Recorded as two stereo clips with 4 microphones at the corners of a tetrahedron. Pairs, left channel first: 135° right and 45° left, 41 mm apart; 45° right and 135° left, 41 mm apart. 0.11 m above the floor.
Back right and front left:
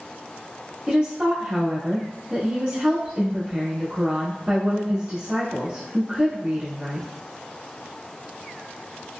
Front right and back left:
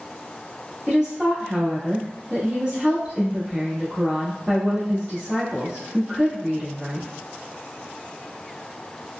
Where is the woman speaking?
75° left, 1.2 m.